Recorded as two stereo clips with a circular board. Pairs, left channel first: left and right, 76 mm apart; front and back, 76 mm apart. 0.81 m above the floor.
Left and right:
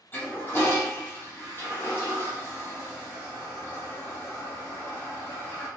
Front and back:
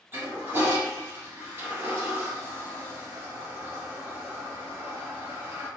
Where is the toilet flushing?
140° left, 0.8 m.